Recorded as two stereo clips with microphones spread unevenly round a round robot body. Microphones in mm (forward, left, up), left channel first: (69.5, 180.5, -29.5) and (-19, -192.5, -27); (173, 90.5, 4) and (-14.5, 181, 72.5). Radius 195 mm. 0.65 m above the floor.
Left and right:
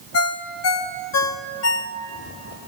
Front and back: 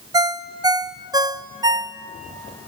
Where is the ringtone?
65° left, 0.6 m.